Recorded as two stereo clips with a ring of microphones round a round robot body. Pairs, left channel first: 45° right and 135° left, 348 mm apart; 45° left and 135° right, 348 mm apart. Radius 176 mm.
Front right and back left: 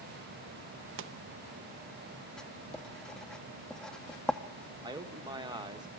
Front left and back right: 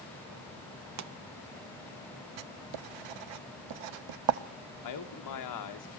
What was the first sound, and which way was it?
A pop, 175° right.